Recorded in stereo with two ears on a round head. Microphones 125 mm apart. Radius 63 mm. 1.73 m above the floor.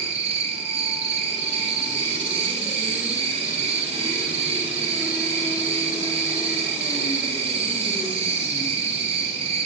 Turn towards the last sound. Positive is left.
turn(degrees=-45)  # may be behind; listen again after turning